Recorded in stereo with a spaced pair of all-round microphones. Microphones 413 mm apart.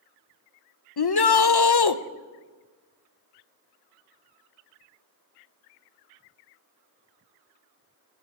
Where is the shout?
65° left (ahead or behind), 0.6 m.